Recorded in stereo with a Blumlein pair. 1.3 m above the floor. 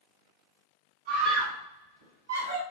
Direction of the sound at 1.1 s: 40° right.